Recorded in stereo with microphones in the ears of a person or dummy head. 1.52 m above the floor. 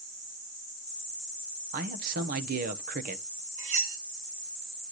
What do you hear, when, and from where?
1.7 s a man speaking: 50° right (ahead or behind), 1.3 m
3.6 s cutlery clinking: 40° right (ahead or behind), 1.2 m